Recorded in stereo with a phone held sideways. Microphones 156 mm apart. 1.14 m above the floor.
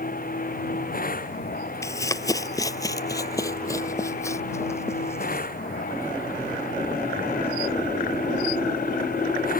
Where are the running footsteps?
20° left (ahead or behind); by 5.5 s 15° left (ahead or behind).